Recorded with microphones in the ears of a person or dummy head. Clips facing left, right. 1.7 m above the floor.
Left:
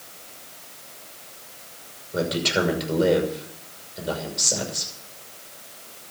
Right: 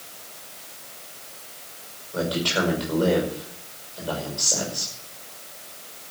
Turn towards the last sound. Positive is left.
turn(degrees=30)  # may be behind; listen again after turning